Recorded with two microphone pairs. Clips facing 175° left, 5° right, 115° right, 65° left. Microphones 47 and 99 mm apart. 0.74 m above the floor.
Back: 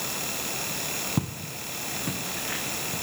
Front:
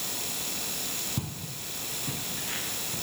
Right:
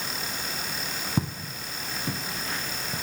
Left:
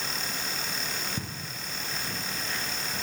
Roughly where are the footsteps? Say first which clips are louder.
Back 6 dB, right 7 dB; behind right.